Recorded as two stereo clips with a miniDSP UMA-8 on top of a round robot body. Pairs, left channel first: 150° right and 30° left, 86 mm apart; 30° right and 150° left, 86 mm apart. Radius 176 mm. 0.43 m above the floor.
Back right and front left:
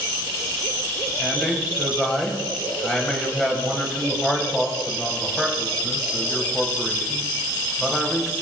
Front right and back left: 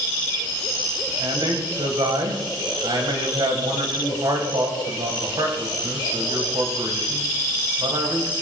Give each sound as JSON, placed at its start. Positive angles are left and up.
{"t": 1.2, "sound": "a man speaking", "azimuth_deg": 125, "distance_m": 4.0}